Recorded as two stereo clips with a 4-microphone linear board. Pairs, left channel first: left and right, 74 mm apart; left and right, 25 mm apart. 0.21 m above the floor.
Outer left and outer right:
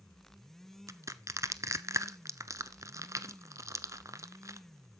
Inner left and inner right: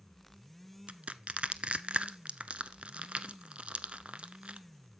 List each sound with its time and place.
0.9 s crushing: 50° right (ahead or behind), 0.7 m